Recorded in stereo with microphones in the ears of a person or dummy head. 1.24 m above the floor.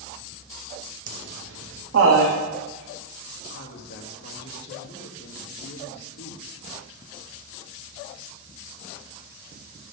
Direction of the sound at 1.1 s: 50° right (ahead or behind).